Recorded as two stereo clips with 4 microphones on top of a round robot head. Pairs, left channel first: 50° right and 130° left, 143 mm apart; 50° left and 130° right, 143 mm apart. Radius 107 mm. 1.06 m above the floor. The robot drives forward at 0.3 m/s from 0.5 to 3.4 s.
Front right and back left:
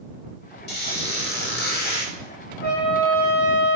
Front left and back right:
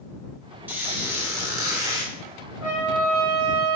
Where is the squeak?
55° right, 1.8 m; by 2.1 s 70° right, 1.6 m.